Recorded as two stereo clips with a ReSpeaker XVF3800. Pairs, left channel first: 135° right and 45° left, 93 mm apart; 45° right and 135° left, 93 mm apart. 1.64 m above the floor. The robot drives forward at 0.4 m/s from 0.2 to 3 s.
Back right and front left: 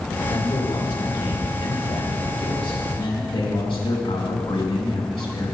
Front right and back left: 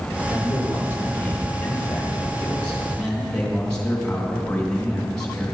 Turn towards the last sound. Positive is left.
turn(degrees=-125)